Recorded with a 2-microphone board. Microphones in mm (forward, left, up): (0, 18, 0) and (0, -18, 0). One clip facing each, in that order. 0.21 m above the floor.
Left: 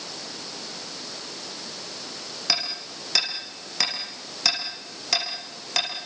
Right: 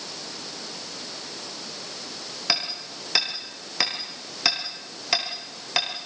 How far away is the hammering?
About 6 m.